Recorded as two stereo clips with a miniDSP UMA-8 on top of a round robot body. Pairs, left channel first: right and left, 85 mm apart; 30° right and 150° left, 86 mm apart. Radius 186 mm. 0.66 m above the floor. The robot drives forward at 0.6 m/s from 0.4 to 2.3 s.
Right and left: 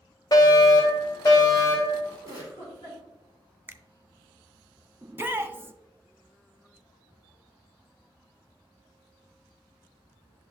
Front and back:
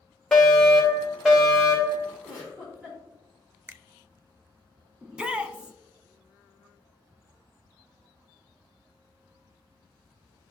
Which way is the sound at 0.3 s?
110° right.